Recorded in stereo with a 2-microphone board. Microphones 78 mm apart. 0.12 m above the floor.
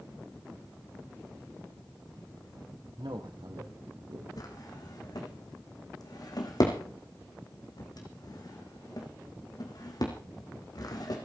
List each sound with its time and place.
3.0 s a man speaking: 70° right (ahead or behind), 5 m; by 4.3 s 60° right (ahead or behind), 6.5 m
4.4 s a drawer: 55° left (ahead or behind), 4.5 m